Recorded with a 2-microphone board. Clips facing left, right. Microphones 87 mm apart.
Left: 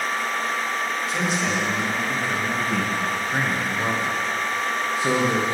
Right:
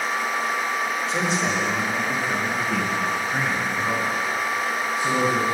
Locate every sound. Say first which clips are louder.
1.1 s a man speaking: even; 30° right (ahead or behind), 3 m; by 5.5 s 90° left, 2.5 m